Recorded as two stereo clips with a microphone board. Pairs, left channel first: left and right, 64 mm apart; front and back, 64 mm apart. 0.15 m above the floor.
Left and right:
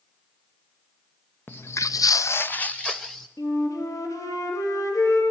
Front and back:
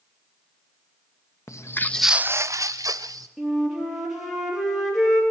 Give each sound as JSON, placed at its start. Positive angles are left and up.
{"t": 1.5, "sound": "footsteps", "azimuth_deg": 35, "distance_m": 1.0}
{"t": 3.4, "sound": "a flute", "azimuth_deg": 95, "distance_m": 4.5}